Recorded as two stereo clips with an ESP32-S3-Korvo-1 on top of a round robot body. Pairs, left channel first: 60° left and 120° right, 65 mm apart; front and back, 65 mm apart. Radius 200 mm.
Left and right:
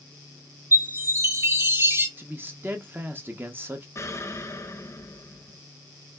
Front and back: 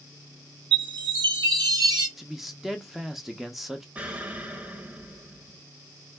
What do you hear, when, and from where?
0.7 s a chime: 175° right, 0.5 m
2.2 s a man speaking: 95° right, 0.8 m
4.0 s an explosion: 110° left, 0.9 m